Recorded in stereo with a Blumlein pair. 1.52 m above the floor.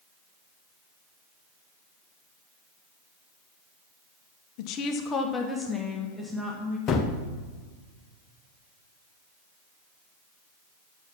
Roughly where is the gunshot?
Ahead left.